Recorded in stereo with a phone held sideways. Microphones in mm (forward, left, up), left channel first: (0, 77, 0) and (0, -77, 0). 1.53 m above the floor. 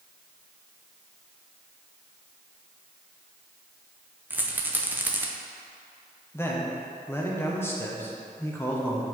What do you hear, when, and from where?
4.3 s a rattle: 10° right (ahead or behind), 0.7 m
6.3 s a man speaking: 15° left (ahead or behind), 1.3 m